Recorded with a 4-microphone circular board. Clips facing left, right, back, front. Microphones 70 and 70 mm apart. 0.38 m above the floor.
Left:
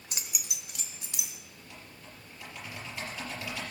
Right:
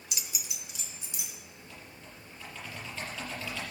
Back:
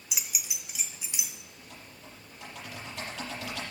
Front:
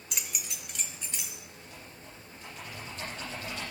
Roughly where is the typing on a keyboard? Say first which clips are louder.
Even, front 1 dB; behind.